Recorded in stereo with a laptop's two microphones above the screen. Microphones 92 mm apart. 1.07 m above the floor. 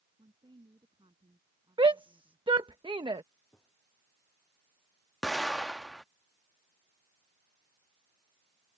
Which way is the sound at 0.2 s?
70° right (ahead or behind).